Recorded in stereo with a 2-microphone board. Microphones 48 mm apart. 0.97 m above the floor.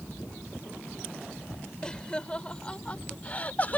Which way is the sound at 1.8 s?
15° left (ahead or behind).